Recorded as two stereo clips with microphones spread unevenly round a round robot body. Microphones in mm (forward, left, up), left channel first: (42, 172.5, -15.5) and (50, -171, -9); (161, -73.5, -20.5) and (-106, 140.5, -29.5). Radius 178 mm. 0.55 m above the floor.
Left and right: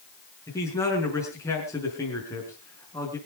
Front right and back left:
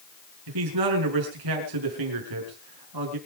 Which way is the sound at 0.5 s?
175° left.